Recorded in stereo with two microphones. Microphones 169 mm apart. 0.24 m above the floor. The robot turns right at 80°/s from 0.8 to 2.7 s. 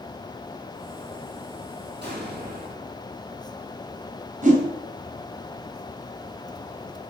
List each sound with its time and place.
2.0 s an explosion: 100° right, 2.5 m; by 3.0 s 45° right, 2.5 m
4.4 s a whoosh: 50° right (ahead or behind), 2 m